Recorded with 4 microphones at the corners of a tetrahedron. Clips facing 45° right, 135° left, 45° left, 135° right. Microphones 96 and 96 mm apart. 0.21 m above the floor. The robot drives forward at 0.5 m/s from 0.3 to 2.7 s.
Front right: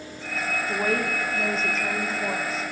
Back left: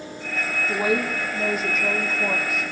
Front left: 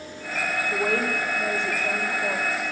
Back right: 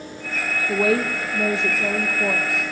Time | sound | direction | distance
0.7 | a woman speaking | 140° right | 7 m